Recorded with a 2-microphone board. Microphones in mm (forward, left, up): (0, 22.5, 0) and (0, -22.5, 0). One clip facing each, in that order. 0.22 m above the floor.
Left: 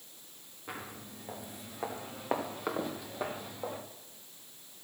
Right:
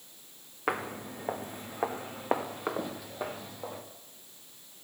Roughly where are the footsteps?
Right.